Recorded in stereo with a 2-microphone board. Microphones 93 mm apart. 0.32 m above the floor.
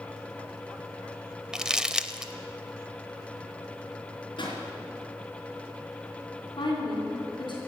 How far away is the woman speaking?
About 3 m.